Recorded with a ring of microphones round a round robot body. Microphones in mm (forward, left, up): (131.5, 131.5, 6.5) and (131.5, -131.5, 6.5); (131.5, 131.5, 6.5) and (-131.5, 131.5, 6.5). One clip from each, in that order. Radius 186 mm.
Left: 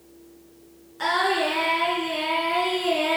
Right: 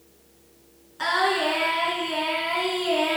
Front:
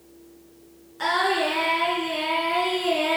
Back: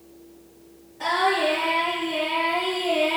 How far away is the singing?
About 2.5 m.